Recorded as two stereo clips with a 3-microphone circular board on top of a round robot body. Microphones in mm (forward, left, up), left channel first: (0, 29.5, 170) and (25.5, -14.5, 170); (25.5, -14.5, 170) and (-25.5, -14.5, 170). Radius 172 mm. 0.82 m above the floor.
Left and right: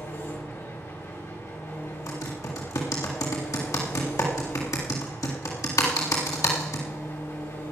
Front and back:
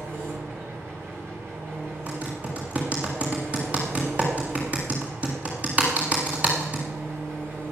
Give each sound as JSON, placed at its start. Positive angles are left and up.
{"t": 0.0, "sound": "an engine running", "azimuth_deg": 140, "distance_m": 4.5}
{"t": 2.1, "sound": "typing on a keyboard", "azimuth_deg": 115, "distance_m": 1.6}